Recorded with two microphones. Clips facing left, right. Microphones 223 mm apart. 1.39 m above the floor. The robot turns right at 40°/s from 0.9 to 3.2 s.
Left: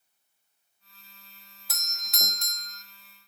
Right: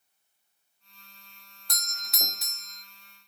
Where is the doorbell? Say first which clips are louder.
Right 1 dB; 5° left (ahead or behind), 0.9 m; by 2.8 s 10° right (ahead or behind), 0.9 m.